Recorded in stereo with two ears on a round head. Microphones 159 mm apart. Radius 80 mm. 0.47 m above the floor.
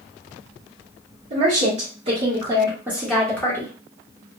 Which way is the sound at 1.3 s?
50° right (ahead or behind).